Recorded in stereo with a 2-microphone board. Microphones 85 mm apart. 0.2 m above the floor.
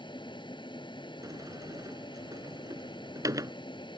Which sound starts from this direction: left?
An aircraft, at 0.0 s.